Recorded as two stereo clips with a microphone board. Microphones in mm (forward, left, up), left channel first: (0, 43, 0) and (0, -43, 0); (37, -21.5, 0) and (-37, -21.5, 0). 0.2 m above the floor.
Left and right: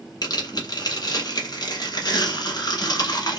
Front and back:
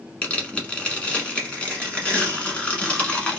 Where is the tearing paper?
70° left, 1.2 m.